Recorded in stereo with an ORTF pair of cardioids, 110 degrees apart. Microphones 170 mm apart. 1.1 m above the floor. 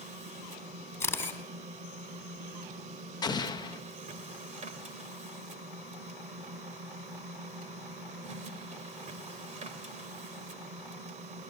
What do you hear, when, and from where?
0.0 s a machine running: 45° right, 2.5 m
1.0 s a camera shutter: 15° left, 3.5 m
3.2 s an explosion: 25° left, 1.1 m